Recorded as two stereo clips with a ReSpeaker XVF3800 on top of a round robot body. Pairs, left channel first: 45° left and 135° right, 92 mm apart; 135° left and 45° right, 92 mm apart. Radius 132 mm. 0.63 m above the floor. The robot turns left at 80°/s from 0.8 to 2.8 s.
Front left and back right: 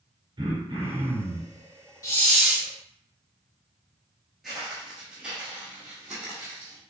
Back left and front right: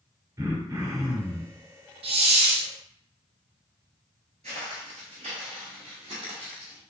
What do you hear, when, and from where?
0.4 s throat clearing: 105° right, 2 m; by 1.6 s 165° right, 2 m
2.0 s a hiss: 15° right, 0.6 m; by 2.7 s 65° right, 0.6 m
4.4 s footsteps: 45° right, 0.7 m; by 6.8 s 60° right, 1.7 m